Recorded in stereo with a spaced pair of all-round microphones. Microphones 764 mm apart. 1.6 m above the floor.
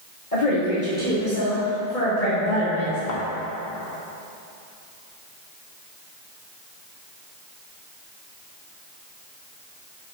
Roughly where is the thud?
Left.